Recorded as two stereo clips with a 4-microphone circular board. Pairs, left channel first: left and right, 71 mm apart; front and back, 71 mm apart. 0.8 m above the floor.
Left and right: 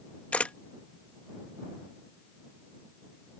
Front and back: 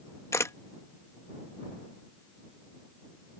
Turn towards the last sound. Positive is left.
turn(degrees=25)